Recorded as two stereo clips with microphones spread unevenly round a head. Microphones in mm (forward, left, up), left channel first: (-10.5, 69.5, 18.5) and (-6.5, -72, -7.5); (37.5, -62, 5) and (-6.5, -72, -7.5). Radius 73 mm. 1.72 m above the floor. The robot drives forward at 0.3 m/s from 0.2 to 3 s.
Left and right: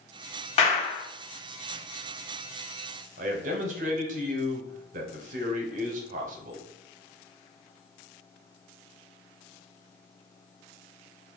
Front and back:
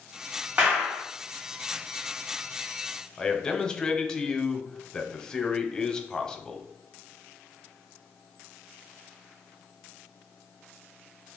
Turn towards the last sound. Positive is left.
turn(degrees=-50)